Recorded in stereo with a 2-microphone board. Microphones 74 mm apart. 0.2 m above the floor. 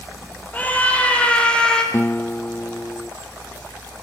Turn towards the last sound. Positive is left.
turn(degrees=30)  # may be behind; listen again after turning